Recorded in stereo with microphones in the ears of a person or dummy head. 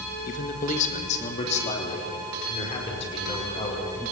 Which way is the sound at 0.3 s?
45° left (ahead or behind).